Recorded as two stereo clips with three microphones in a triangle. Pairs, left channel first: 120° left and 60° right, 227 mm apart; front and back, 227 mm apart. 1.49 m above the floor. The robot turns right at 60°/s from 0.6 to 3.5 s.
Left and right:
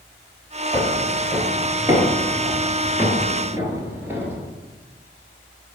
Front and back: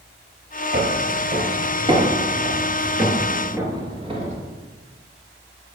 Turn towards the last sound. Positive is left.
turn(degrees=-140)